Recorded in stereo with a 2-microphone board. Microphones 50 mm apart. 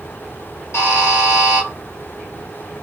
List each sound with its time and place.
0.7 s a buzzer: 65° left (ahead or behind), 1.3 m